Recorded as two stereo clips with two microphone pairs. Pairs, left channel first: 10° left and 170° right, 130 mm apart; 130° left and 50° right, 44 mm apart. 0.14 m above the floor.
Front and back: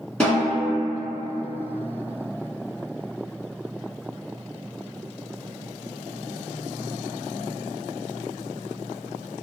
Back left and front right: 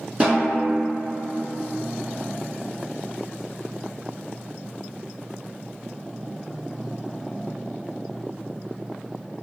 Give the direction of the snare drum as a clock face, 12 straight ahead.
2 o'clock.